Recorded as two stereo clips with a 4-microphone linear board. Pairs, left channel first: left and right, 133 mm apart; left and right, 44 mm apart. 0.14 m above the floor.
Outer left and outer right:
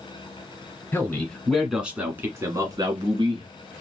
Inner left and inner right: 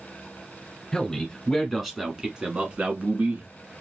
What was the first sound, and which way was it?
A man speaking, 15° left (ahead or behind).